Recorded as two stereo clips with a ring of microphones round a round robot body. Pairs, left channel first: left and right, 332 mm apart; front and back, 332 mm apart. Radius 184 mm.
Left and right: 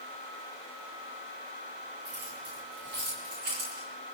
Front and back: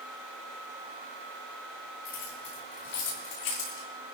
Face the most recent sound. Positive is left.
turn(degrees=-25)